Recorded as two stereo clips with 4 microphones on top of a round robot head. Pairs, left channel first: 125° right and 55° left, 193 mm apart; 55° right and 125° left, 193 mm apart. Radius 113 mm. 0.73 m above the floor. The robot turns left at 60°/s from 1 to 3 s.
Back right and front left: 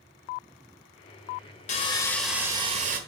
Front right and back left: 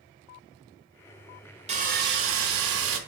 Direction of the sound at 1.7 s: Straight behind.